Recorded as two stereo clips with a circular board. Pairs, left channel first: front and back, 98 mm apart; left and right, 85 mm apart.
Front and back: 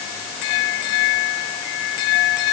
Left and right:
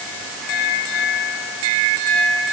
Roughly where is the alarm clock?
No alarm clock in this recording.